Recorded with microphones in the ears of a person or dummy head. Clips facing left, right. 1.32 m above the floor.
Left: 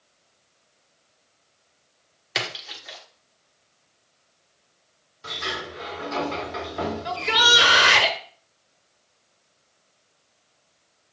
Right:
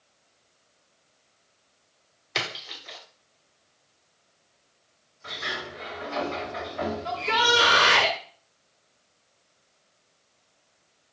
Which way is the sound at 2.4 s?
10° left (ahead or behind).